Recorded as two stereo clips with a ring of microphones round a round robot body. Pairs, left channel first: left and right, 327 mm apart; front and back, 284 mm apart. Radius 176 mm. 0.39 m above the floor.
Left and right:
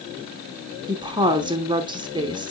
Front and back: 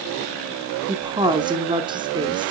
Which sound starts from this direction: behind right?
A woman speaking, at 0.9 s.